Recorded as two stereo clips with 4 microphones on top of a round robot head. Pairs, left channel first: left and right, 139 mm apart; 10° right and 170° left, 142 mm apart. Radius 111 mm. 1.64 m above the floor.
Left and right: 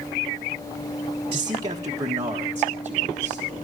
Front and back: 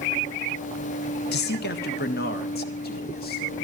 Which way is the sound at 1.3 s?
25° right.